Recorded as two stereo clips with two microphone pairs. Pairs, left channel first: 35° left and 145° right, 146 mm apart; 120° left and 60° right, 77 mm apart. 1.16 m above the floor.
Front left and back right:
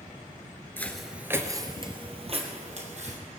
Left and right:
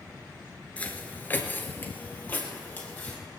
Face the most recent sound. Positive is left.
turn(degrees=-175)